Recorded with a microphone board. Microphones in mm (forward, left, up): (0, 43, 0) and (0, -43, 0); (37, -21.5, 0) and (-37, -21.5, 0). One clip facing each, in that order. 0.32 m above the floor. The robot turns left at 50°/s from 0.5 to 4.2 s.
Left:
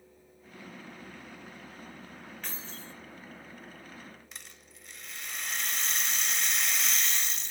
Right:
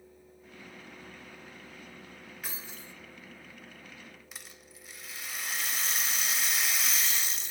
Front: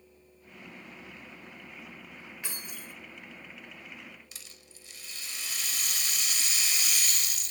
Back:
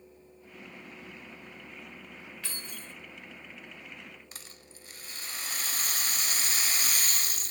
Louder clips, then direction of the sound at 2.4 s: Even, front 1 dB; 20° right.